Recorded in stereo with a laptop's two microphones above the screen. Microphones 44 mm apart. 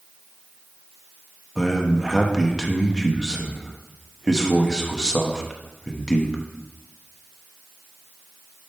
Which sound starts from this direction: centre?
A man speaking, at 1.6 s.